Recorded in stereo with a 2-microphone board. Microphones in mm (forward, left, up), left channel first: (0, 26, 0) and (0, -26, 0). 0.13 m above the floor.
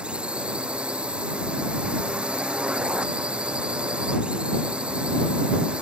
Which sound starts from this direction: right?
A drone, at 0.0 s.